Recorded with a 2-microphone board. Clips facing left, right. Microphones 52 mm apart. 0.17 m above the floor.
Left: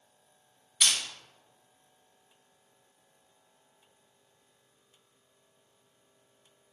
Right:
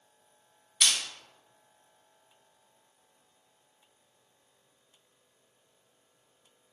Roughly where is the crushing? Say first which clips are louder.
Even; centre.